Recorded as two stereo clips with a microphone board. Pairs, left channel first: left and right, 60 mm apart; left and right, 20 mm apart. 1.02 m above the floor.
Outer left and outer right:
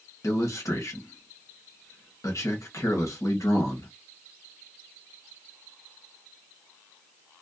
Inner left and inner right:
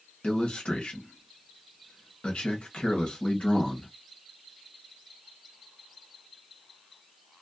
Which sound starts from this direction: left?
A man speaking, at 0.2 s.